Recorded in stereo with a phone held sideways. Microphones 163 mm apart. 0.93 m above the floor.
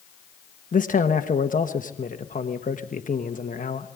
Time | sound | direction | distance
0.7 | a man speaking | 50° left (ahead or behind) | 1.1 m